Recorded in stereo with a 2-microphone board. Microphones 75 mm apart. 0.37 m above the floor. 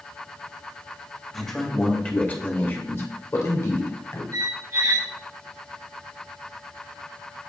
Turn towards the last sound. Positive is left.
turn(degrees=-55)  # may be behind; listen again after turning